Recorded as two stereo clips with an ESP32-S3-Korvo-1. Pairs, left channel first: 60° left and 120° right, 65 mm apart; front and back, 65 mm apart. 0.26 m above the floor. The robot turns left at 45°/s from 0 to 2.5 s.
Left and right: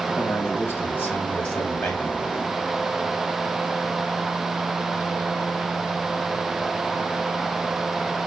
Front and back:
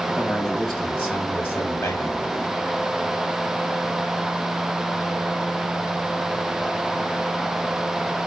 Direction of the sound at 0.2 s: 95° left.